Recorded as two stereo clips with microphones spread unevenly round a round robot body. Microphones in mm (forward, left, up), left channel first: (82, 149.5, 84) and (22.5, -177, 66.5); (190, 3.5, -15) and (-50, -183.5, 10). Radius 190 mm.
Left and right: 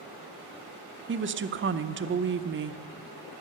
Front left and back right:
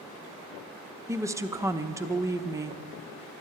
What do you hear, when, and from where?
1.1 s a woman speaking: 60° right, 0.7 m